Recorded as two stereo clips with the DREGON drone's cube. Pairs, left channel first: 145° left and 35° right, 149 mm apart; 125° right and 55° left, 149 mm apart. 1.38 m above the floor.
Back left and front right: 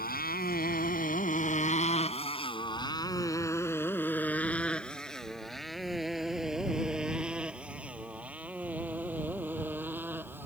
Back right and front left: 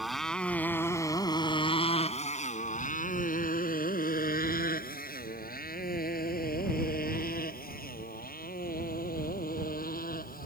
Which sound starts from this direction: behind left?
A motorcycle, at 0.0 s.